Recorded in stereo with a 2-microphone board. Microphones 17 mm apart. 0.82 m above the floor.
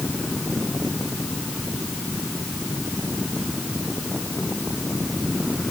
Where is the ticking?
No ticking in this recording.